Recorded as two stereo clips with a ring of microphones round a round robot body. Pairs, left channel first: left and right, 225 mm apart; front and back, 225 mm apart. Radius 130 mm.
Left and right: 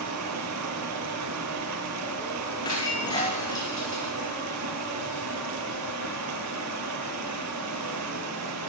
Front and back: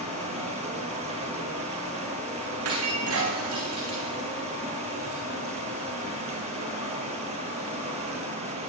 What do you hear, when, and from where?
0.0 s running water: 115° right, 8.5 m
2.6 s breaking glass: 165° left, 9 m